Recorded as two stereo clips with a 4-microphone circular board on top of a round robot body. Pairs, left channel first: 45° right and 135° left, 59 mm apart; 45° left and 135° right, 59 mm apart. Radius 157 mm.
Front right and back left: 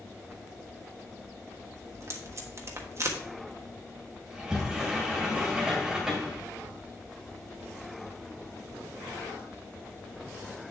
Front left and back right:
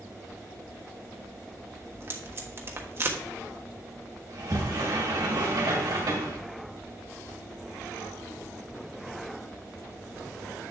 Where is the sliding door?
145° right, 1.9 m.